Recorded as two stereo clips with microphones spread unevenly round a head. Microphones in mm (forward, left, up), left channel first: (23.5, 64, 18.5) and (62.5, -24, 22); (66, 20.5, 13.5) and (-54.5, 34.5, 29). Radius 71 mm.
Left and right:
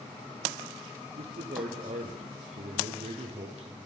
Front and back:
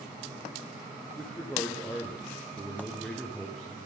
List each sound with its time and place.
1.2 s a man speaking: 90° right, 0.7 m